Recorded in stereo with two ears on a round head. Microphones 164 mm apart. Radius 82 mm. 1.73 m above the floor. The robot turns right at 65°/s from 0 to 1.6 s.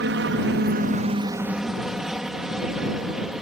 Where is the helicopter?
105° right; by 3.4 s 5° right.